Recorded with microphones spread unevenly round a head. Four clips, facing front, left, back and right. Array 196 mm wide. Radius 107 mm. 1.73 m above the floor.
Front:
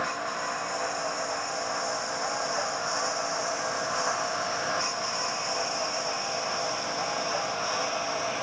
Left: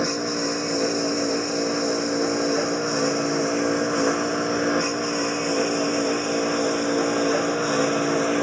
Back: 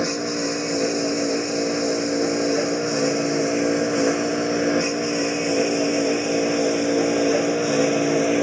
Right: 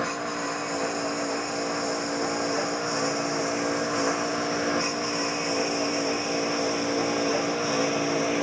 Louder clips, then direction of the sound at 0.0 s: Left 4 dB, back 7 dB; 150° left.